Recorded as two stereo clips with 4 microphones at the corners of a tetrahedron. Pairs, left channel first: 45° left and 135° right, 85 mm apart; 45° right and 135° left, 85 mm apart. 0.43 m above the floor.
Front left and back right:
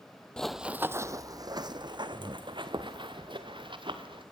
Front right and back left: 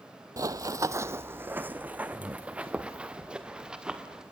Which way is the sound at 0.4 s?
120° left.